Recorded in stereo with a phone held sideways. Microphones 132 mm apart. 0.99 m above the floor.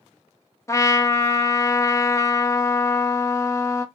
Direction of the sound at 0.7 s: 25° left (ahead or behind).